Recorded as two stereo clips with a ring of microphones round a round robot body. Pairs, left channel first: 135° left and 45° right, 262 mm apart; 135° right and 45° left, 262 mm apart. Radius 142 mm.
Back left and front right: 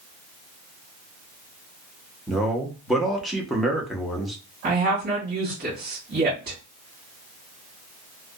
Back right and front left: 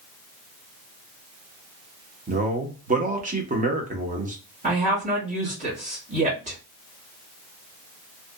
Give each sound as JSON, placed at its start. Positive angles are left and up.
{"t": 2.3, "sound": "a man speaking", "azimuth_deg": 45, "distance_m": 0.8}
{"t": 4.6, "sound": "a woman speaking", "azimuth_deg": -10, "distance_m": 1.3}